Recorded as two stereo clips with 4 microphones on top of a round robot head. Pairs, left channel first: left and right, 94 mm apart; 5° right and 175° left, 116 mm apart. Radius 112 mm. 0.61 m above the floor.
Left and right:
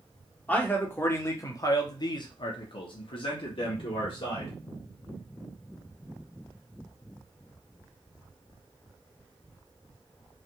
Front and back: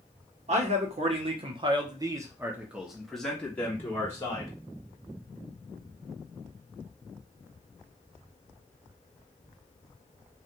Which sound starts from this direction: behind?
A man speaking, at 0.5 s.